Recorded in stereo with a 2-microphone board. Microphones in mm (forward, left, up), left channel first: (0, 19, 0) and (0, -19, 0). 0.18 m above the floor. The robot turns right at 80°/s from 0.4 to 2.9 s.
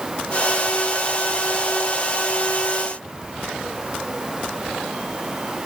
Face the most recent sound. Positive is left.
No sound to turn to.